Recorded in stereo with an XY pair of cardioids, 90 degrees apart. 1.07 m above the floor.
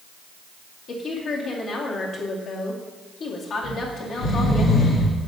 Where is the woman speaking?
70° left, 2.5 m.